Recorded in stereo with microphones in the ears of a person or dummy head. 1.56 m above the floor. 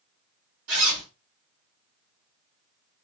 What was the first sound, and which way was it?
A zipper, 65° right (ahead or behind).